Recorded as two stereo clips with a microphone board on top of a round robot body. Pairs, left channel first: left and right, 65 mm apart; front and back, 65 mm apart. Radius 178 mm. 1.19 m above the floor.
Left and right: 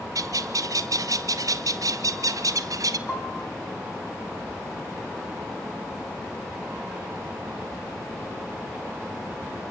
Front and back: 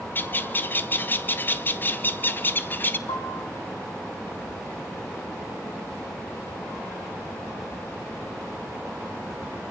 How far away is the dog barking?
I don't hear a dog barking.